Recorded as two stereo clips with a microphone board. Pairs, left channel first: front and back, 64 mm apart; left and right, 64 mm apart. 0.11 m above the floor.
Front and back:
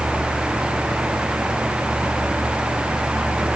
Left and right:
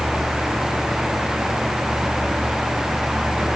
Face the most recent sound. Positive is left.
No sound to turn to.